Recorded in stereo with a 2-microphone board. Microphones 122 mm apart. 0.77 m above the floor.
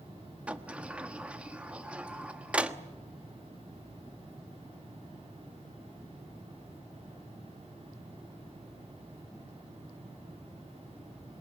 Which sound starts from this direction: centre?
A sliding door, at 0.5 s.